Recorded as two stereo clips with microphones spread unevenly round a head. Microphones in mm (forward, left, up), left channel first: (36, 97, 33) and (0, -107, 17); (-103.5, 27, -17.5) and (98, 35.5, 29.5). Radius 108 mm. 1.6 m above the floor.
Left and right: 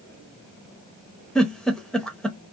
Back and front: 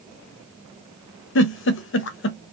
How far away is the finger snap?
I don't hear a finger snap.